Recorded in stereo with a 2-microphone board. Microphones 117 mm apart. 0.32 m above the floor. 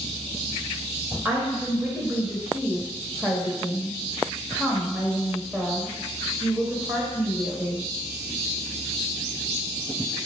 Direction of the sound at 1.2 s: 15° right (ahead or behind).